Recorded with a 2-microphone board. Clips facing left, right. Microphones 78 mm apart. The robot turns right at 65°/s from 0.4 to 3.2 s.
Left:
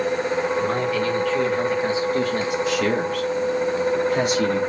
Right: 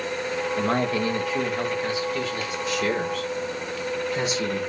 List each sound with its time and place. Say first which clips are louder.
0.6 s a man speaking: left 2 dB; 60° right, 2 m; by 2.6 s 70° left, 2 m
2.7 s a man speaking: even; 90° left, 3.5 m; by 4.6 s 55° left (ahead or behind), 3.5 m